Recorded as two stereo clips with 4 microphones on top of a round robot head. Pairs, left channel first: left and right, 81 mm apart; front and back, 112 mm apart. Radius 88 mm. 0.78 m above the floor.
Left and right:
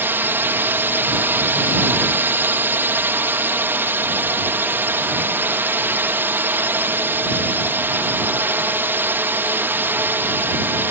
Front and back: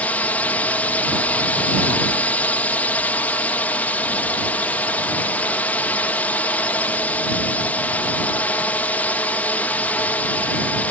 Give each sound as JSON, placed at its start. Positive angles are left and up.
{"t": 0.0, "sound": "a drone", "azimuth_deg": -60}